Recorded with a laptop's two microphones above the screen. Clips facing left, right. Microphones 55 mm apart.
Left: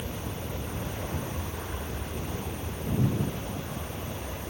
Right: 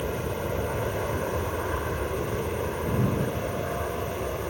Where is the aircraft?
50° right (ahead or behind); by 4.5 s 55° right (ahead or behind).